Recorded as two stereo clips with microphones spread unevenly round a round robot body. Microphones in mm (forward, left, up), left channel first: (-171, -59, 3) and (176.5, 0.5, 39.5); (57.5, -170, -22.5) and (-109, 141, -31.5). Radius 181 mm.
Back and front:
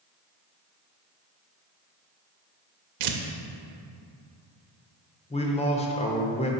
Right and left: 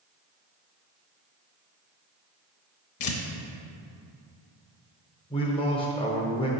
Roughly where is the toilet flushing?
I don't hear a toilet flushing.